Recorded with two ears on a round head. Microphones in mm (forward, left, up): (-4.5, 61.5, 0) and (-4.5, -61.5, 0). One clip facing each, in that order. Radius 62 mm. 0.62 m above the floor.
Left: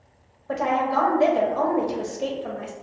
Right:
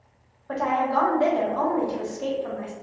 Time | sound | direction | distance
0.5 | a woman speaking | 20° left (ahead or behind) | 0.7 m